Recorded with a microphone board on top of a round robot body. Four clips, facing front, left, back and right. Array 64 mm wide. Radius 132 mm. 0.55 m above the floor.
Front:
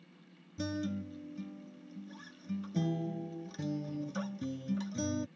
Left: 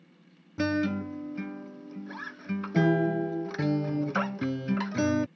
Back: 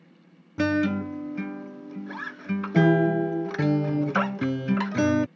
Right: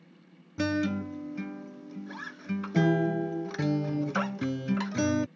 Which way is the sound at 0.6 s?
175° left.